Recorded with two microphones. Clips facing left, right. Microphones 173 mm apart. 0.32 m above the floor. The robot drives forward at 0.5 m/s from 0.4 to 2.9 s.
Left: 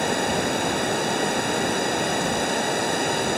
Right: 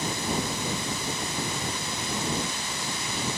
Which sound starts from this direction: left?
Running water, at 0.0 s.